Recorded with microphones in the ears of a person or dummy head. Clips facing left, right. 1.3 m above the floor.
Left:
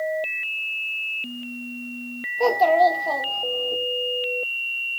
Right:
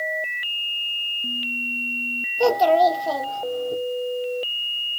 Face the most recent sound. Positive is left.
turn(degrees=-15)  # may be behind; listen again after turning